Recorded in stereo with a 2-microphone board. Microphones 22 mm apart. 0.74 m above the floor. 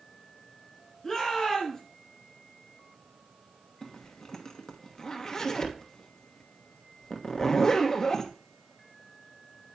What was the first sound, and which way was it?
A shout, 30° left (ahead or behind).